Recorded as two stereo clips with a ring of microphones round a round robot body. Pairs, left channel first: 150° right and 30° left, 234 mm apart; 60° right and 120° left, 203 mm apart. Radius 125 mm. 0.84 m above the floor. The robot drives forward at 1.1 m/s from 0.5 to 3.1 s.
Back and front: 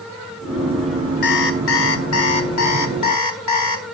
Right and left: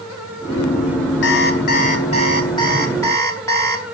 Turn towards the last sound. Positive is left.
turn(degrees=-140)